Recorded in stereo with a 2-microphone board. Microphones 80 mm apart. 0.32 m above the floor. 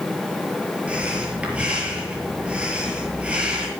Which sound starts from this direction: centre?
Breathing, at 0.9 s.